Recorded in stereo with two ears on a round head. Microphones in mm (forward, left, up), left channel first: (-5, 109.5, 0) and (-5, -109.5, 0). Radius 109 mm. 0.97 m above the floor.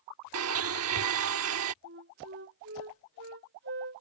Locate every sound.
0.3 s a blender: 65° right (ahead or behind)
1.8 s a flute: 45° right (ahead or behind)